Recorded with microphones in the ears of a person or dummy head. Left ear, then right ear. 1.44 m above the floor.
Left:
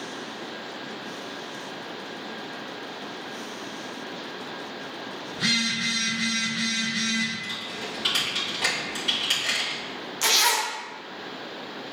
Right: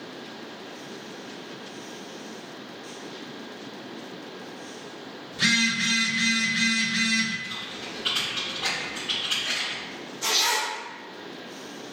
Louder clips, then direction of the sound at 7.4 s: Left 2 dB; 60° left (ahead or behind).